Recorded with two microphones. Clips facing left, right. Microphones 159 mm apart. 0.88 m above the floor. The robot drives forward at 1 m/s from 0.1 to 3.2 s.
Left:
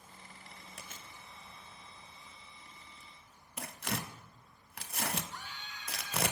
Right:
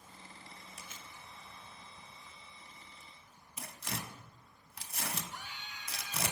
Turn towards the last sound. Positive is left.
turn(degrees=-15)  # may be behind; listen again after turning